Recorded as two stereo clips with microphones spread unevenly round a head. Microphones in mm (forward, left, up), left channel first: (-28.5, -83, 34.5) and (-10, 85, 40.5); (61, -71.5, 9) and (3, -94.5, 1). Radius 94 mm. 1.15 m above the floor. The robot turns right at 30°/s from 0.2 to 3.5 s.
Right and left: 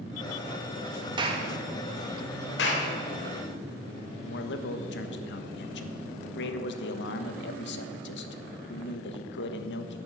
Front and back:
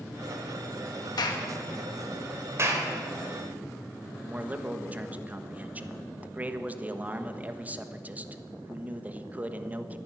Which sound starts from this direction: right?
A man speaking, at 4.2 s.